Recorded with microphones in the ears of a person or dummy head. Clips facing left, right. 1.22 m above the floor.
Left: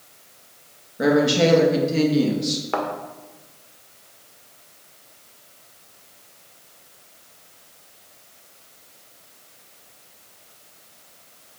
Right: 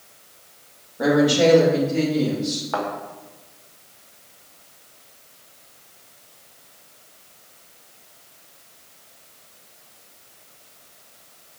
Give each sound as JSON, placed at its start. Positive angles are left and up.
{"t": 1.0, "sound": "a woman speaking", "side_deg": 25, "distance_m": 2.0}
{"t": 2.7, "sound": "a thud", "side_deg": 35, "distance_m": 1.6}